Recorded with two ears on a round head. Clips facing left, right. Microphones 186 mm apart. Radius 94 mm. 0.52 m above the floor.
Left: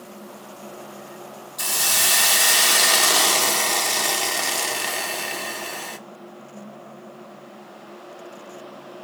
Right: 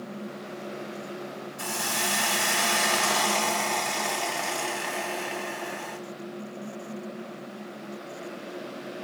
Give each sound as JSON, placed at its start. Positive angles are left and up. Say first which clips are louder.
{"t": 1.6, "sound": "a hiss", "louder": "left 2 dB", "side_deg": 50, "distance_m": 0.8}